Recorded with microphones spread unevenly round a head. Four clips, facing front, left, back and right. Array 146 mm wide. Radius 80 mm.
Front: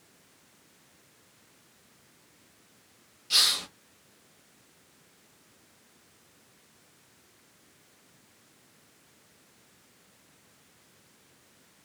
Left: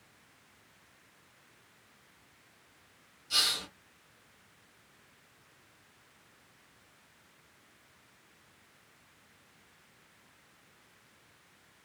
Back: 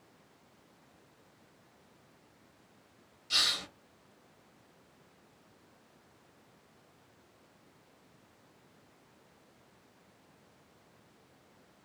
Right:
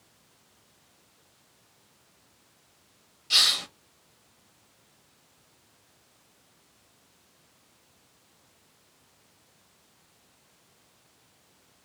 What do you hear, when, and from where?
3.3 s a hiss: 70° right, 1.2 m